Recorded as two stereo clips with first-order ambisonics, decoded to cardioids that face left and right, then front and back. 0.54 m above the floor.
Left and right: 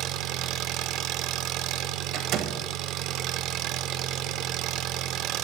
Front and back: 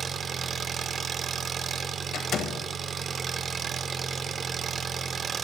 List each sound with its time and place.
0.0 s an engine running: 115° right, 0.8 m
2.1 s a door slam: 55° right, 2 m